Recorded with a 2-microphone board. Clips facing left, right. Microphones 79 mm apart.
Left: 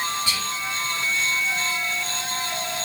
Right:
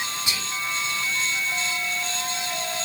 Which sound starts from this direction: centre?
Whispering, at 0.3 s.